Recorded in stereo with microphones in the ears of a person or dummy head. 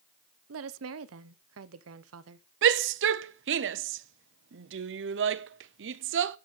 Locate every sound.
0.5 s a woman speaking: 70° right (ahead or behind), 0.9 m
2.6 s a shout: 60° right (ahead or behind), 0.8 m